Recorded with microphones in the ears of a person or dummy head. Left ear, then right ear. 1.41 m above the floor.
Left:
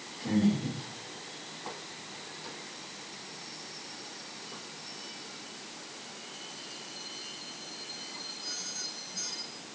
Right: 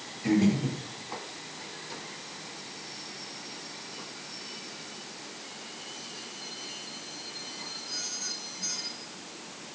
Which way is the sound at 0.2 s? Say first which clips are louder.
Right 4 dB; 65° right (ahead or behind).